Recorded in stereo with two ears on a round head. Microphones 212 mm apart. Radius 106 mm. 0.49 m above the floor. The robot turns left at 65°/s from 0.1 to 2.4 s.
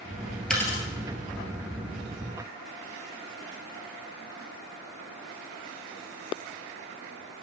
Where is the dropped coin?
5° left (ahead or behind), 1.7 m; by 0.8 s 25° left (ahead or behind), 1.7 m.